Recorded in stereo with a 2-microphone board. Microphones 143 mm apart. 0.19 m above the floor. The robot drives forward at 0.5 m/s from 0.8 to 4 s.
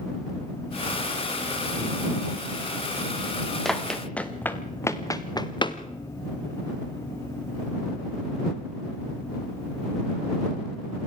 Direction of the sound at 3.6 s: Centre (ahead or behind).